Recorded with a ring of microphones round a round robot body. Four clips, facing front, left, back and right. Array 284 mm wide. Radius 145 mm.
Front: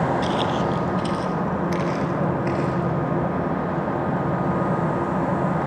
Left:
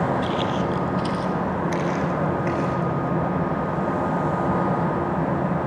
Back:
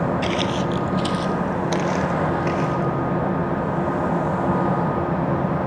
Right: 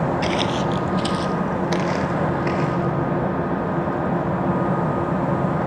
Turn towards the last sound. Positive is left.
turn(degrees=-130)